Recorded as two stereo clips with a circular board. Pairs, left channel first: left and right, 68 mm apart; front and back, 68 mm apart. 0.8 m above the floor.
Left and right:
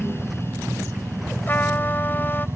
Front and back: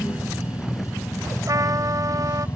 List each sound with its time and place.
0.0 s a helicopter: 30° right; by 2.6 s 35° right
1.5 s a trumpet: 150° left